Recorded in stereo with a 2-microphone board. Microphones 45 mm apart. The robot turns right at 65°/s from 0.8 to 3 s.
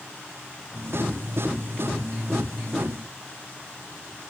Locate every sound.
Only background noise.